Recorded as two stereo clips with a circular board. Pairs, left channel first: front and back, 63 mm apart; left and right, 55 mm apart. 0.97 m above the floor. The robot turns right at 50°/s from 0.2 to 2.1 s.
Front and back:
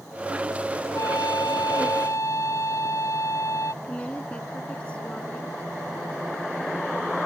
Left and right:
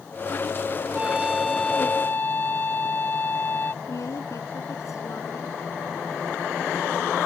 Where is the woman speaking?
70° left.